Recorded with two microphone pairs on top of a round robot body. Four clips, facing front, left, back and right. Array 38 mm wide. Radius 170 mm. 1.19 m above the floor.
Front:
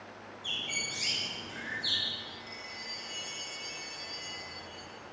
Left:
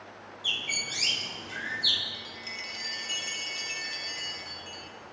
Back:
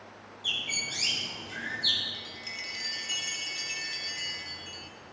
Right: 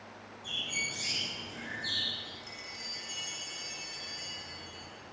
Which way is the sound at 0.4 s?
110° left.